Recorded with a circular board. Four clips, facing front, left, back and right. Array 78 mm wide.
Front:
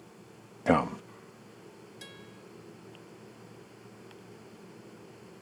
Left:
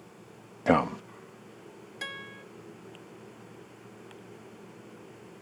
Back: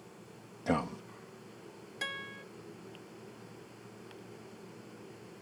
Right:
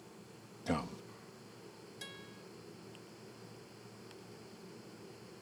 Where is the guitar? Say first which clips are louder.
Left 13 dB, back 13 dB; 135° left.